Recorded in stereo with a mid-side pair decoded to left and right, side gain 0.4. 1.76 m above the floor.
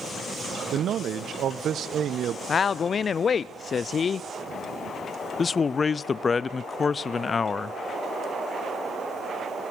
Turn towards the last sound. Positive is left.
turn(degrees=40)